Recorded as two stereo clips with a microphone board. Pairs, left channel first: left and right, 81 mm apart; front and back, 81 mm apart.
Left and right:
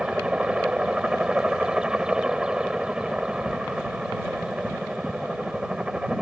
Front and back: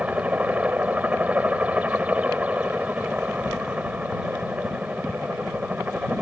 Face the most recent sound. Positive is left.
turn(degrees=-150)